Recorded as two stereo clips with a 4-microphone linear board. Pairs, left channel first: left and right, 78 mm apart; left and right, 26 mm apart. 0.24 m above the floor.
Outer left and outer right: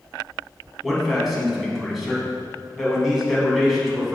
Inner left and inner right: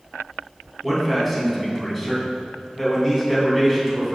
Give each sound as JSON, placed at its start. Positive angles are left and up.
{"t": 0.8, "sound": "a man speaking", "side_deg": 0, "distance_m": 2.5}